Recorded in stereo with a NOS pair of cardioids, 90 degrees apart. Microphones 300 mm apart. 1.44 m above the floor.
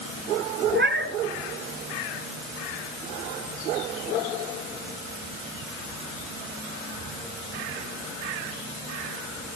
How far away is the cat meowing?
About 4.5 m.